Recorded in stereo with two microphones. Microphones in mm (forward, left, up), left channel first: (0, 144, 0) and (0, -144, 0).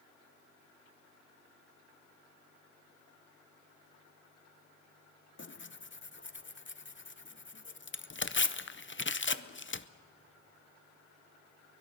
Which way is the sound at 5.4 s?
40° left (ahead or behind).